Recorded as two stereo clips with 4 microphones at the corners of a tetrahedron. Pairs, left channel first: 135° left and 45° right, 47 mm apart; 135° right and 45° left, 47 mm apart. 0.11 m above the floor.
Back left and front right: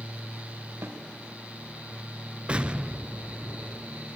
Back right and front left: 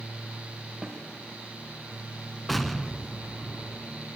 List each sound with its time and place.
0.8 s a snare drum: 25° right, 4.5 m
2.5 s an explosion: 50° right, 1.1 m